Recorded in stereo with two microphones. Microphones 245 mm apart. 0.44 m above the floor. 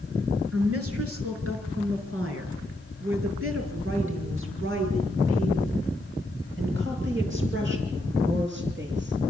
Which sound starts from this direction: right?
A woman speaking, at 0.5 s.